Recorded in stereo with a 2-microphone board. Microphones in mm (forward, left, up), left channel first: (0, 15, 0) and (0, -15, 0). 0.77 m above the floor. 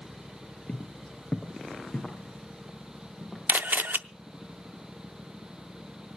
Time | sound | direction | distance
0.7 | footsteps | 30° left (ahead or behind) | 1.1 m
3.5 | a camera shutter | 75° right (ahead or behind) | 0.5 m